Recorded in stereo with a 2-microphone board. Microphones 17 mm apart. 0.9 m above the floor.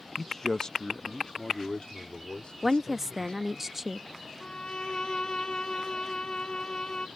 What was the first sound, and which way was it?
A man speaking, 5° left (ahead or behind).